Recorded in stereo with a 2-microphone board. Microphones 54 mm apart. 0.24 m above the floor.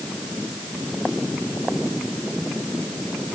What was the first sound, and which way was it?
Only background noise.